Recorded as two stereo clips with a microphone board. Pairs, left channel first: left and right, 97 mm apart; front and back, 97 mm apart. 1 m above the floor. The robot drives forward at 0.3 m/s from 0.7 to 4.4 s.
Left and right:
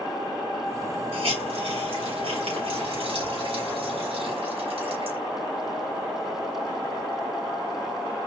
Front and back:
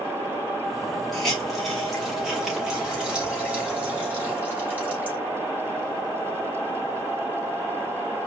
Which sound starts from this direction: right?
A hiss, at 1.1 s.